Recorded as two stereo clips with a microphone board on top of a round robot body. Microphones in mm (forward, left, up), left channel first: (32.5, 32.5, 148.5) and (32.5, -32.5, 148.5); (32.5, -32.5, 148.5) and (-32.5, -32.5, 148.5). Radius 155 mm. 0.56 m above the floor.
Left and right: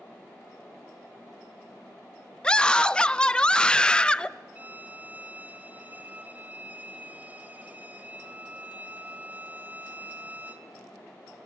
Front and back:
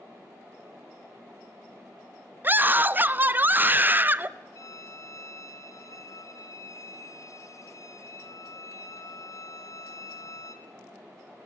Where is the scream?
155° left, 0.8 m.